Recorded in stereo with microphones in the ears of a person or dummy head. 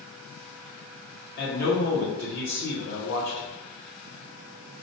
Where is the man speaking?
60° left (ahead or behind), 0.9 m.